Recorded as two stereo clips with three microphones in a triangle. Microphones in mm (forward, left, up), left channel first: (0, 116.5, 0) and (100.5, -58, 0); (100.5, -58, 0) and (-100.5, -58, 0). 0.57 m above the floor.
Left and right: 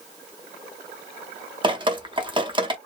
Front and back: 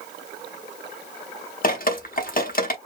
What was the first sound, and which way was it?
Dripping, 5° right.